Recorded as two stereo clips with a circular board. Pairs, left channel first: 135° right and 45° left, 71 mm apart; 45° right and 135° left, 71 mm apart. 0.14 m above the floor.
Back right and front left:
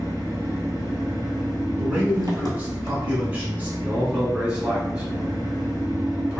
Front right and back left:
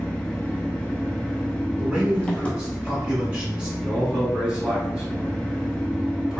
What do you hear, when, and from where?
0.0 s an engine running: 25° left, 0.9 m
1.8 s a man speaking: 75° left, 1.2 m
3.8 s a man speaking: 80° left, 1.7 m